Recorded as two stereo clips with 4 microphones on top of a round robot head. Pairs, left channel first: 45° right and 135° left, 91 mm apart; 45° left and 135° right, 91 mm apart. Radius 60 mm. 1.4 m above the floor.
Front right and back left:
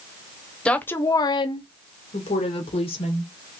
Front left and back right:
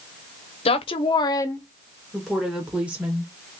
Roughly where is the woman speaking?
Ahead left.